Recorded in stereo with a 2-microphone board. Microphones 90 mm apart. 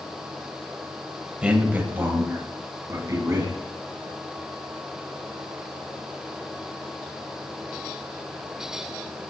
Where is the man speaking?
15° right (ahead or behind), 1.0 m; by 3.5 s 40° right (ahead or behind), 2 m.